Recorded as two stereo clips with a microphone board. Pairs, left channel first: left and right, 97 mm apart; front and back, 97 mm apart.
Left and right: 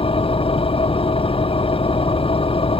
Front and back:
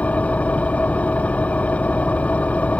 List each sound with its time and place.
0.0 s an engine running: 75° left